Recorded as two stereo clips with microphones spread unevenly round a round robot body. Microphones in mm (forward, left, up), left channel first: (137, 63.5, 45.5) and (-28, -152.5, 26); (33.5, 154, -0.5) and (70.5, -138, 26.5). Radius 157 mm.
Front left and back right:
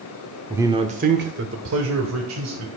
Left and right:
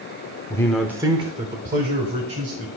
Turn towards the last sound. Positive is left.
turn(degrees=-135)